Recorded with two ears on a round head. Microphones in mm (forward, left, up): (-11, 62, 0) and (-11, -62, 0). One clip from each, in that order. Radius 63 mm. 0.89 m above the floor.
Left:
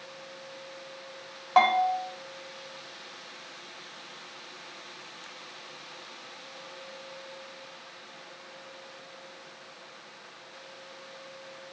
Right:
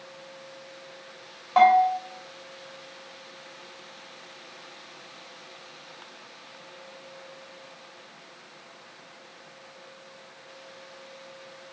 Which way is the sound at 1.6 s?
25° left (ahead or behind).